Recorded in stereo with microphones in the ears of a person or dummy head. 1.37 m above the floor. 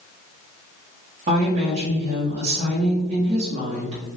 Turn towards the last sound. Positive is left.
turn(degrees=-45)  # may be behind; listen again after turning